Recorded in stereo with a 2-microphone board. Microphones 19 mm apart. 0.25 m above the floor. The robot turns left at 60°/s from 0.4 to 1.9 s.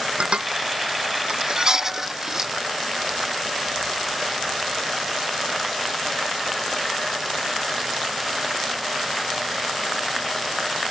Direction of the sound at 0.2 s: 60° right (ahead or behind).